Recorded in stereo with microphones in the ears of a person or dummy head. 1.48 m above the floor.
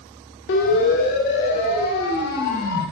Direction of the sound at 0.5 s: 65° left (ahead or behind).